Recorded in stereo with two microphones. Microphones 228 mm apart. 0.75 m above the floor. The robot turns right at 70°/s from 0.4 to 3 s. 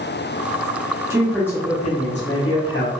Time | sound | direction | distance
1.1 | a man speaking | 15° right | 1.2 m